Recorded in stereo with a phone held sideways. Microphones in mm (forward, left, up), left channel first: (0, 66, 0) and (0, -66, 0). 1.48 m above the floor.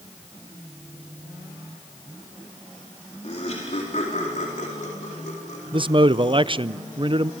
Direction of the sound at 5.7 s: 40° right (ahead or behind).